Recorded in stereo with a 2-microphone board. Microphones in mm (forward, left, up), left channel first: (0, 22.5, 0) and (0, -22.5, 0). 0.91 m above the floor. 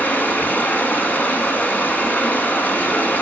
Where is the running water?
45° left (ahead or behind), 1.4 m.